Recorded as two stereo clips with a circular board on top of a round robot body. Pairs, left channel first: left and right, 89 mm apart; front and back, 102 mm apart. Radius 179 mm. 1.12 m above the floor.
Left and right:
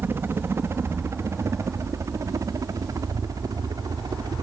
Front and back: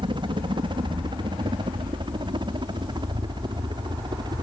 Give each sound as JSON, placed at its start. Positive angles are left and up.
{"t": 0.0, "sound": "a helicopter", "azimuth_deg": -155}